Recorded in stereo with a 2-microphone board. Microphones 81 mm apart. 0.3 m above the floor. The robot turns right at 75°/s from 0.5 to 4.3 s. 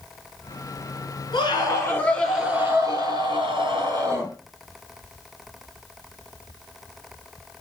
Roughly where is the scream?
Left.